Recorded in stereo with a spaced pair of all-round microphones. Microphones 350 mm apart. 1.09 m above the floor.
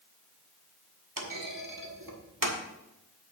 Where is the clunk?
75° right (ahead or behind), 1.6 m.